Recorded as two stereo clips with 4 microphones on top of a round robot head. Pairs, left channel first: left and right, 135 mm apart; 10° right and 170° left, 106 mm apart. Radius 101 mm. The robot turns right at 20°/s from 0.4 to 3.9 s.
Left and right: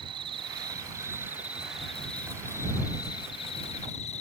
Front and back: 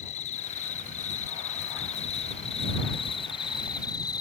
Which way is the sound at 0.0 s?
30° right.